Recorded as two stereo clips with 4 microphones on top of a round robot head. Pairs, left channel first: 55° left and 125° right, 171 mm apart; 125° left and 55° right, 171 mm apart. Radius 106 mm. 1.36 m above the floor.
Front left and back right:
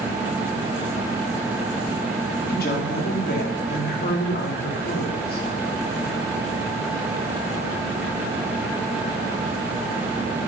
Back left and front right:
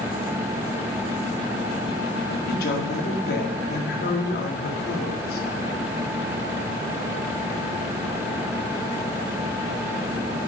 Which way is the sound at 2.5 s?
90° left.